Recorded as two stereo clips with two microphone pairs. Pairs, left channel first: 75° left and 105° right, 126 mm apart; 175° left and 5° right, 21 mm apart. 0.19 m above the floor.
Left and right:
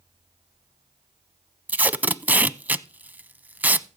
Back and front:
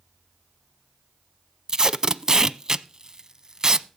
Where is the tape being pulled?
35° right, 0.5 m.